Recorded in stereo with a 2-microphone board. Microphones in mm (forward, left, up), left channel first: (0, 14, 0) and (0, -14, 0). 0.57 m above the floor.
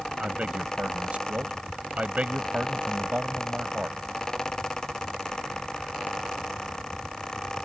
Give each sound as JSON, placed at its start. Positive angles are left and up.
{"t": 0.2, "sound": "a man speaking", "side_deg": -50}